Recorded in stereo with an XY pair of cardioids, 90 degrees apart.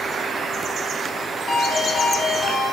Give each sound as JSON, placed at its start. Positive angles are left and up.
{"t": 1.5, "sound": "a ringtone", "azimuth_deg": 40, "distance_m": 2.0}